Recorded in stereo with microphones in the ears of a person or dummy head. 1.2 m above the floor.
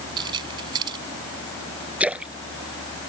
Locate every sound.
0.2 s keys jangling: 30° right (ahead or behind)
2.0 s a splash: 10° right (ahead or behind)